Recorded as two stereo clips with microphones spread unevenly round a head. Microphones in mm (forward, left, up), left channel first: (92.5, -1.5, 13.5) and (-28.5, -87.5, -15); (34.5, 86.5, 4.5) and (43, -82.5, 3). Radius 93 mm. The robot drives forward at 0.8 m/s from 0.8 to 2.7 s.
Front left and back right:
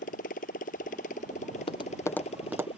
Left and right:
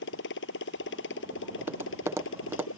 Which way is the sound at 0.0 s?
85° left.